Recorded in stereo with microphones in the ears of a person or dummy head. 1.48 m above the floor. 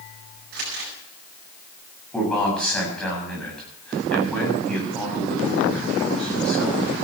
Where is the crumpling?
45° right (ahead or behind), 7 m.